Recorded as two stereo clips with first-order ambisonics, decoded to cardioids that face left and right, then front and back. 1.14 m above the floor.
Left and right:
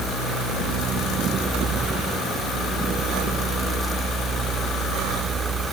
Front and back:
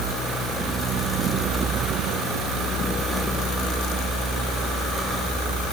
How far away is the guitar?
I don't hear a guitar.